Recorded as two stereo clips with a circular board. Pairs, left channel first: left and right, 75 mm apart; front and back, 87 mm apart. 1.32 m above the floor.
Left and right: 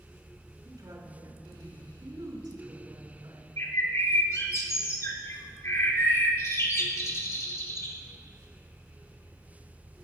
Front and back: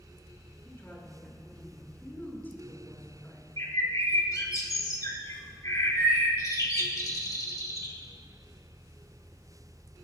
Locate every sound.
0.7 s a woman speaking: 65° right, 5.5 m
3.6 s a bird: 45° left, 2.5 m